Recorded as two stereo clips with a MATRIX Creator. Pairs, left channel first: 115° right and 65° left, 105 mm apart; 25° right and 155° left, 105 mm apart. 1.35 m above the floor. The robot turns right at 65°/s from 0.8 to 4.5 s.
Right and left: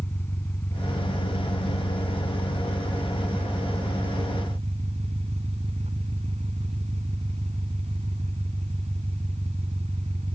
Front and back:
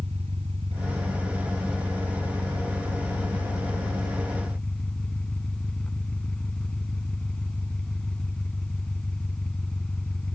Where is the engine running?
Straight behind; by 10.3 s 60° left.